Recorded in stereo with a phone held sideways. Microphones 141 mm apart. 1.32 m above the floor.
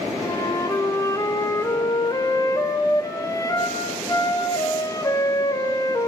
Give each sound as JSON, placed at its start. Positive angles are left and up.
{"t": 0.2, "sound": "a flute", "side_deg": 25, "distance_m": 3.5}